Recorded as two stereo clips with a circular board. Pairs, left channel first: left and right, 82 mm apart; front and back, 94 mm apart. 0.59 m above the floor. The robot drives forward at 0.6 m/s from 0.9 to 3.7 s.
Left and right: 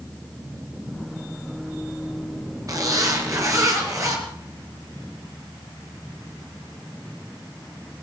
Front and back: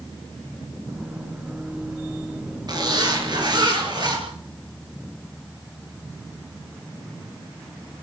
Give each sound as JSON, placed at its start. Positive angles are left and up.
{"t": 2.7, "sound": "a zipper", "azimuth_deg": -135, "distance_m": 6.0}